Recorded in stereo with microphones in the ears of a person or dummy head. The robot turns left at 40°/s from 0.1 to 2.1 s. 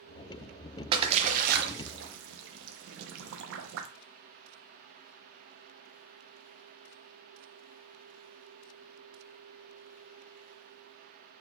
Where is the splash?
35° right (ahead or behind), 0.6 m; by 3.9 s 80° right, 0.6 m.